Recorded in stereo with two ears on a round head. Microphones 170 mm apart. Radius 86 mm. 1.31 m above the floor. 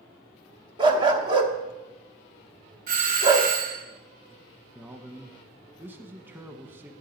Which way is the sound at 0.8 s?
25° right (ahead or behind).